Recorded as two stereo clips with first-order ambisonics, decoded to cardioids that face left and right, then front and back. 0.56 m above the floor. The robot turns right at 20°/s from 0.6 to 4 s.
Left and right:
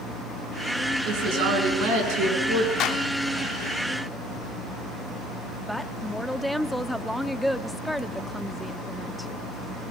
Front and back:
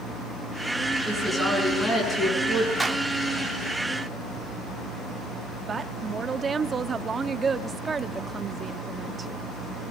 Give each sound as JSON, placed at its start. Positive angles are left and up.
{"t": 1.1, "sound": "a woman speaking", "azimuth_deg": -95, "distance_m": 6.0}
{"t": 2.8, "sound": "a clap", "azimuth_deg": 100, "distance_m": 1.3}
{"t": 5.7, "sound": "a woman speaking", "azimuth_deg": 170, "distance_m": 0.6}